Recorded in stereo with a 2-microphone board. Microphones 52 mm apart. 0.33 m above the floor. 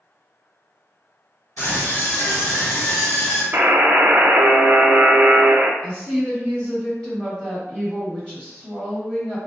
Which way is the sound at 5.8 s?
20° left (ahead or behind).